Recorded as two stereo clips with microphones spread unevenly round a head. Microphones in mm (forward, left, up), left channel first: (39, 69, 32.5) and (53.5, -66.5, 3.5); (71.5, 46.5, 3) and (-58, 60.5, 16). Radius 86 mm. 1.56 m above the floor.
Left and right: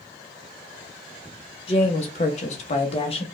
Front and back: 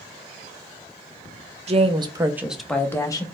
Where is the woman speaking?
145° left, 0.9 m; by 3.2 s 55° left, 1.0 m.